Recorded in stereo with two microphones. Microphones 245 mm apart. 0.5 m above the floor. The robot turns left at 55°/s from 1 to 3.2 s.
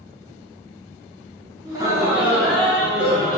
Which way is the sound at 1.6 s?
15° right (ahead or behind).